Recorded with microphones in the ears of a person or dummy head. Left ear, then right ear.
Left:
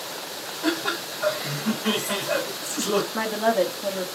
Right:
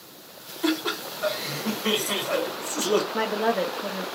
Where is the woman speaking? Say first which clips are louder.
Left 2 dB; 5° right (ahead or behind), 0.5 m.